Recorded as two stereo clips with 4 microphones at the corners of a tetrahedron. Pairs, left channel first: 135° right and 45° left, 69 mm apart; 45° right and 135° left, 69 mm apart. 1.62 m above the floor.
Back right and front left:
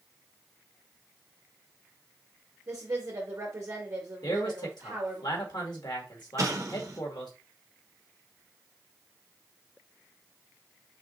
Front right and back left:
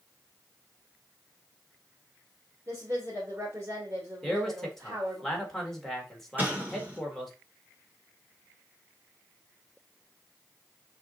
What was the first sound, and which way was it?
A woman speaking, 85° left.